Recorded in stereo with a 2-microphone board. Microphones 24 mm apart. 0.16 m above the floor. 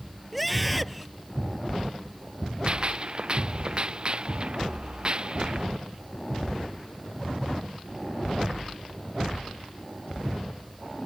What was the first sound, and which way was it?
A scream, centre (ahead or behind).